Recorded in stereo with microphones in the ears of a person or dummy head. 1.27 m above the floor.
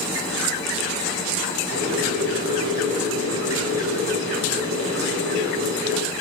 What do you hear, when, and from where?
1.7 s boiling: 75° right (ahead or behind), 8 m